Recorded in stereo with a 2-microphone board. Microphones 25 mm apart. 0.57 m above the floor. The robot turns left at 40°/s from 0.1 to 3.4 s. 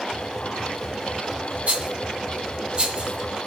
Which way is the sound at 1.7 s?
60° right (ahead or behind).